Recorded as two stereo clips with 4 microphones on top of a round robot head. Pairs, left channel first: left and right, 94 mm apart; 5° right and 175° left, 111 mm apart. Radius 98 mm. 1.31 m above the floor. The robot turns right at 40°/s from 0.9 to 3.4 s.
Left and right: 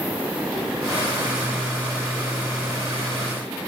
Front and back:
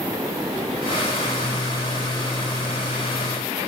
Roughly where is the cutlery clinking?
No cutlery clinking in this recording.